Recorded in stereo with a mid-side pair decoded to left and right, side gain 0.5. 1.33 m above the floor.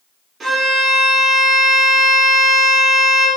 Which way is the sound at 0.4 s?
30° right.